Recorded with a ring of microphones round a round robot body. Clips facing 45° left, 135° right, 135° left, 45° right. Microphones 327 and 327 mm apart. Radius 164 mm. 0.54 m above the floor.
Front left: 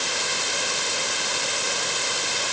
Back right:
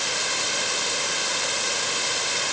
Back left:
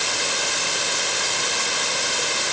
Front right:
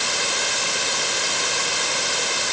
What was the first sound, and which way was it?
Only background noise.